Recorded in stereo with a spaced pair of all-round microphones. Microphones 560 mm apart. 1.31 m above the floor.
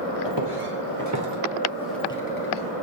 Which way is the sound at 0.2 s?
50° right (ahead or behind).